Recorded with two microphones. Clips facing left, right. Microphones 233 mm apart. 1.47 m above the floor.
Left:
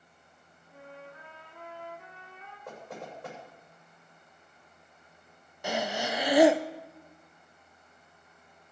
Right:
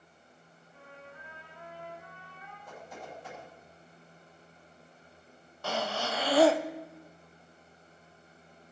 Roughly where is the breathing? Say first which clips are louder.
Left 2 dB; centre.